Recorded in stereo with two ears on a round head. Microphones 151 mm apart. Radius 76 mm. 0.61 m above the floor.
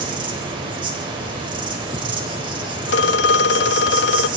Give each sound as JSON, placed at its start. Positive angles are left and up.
{"t": 0.0, "sound": "an insect", "side_deg": -30, "distance_m": 3.5}
{"t": 2.9, "sound": "a phone ringing", "side_deg": 75, "distance_m": 0.6}